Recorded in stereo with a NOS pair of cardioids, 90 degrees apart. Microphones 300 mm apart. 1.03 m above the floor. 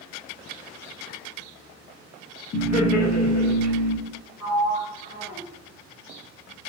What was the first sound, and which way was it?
Laughter, 65° left.